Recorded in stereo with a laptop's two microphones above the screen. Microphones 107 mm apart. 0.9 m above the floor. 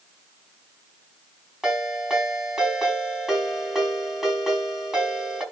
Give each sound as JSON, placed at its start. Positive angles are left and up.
{"t": 1.6, "sound": "a ringtone", "side_deg": -5, "distance_m": 4.5}